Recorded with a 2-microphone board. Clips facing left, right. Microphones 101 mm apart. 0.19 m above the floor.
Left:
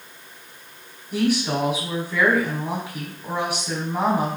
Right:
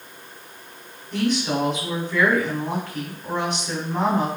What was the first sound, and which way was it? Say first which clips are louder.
A woman speaking: left 1 dB; 10° left (ahead or behind).